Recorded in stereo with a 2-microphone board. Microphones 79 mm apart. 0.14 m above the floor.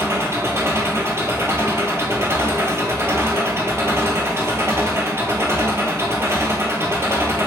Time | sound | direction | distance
0.0 | an engine running | 35° right (ahead or behind) | 1.0 m